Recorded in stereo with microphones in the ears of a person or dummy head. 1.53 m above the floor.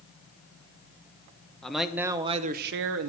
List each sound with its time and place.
1.6 s a man speaking: 5° left (ahead or behind), 1.2 m; by 3.1 s 75° right (ahead or behind), 0.8 m